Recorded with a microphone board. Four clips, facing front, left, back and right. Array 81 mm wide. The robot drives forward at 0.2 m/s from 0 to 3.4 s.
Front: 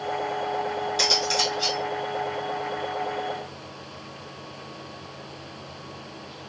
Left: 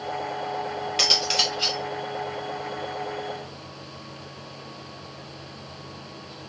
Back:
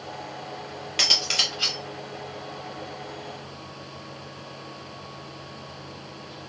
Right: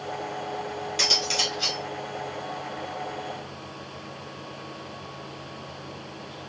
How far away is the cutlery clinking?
About 1.7 m.